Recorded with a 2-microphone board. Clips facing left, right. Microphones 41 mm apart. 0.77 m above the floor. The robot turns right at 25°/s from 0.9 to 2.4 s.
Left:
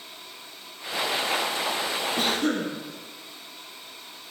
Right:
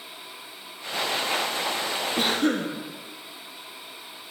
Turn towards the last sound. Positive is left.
turn(degrees=-10)  # may be behind; listen again after turning